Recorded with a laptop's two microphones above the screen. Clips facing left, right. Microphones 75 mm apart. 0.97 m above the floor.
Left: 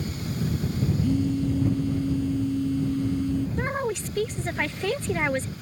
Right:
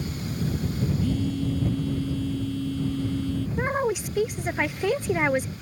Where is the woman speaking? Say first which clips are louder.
Right 2 dB; 10° right (ahead or behind).